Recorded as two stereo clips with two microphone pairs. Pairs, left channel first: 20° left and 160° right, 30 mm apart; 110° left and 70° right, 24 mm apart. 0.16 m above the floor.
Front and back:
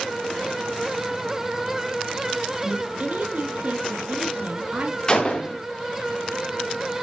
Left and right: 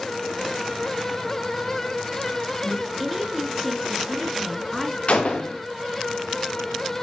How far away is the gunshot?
About 3.5 m.